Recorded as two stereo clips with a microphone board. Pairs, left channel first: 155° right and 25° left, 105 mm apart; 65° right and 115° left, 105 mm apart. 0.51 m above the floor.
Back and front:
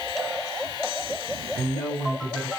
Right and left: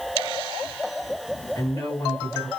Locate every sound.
1.6 s a woman speaking: 100° right, 1.7 m